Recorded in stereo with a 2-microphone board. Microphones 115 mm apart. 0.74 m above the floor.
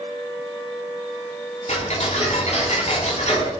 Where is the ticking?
80° left, 7.5 m.